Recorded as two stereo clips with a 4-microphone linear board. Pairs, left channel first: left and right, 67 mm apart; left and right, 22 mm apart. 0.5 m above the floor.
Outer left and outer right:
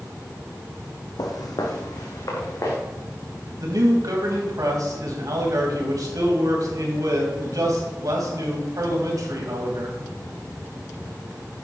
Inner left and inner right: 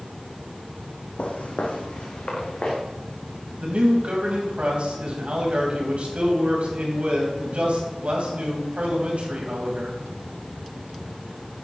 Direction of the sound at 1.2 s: 75° left (ahead or behind).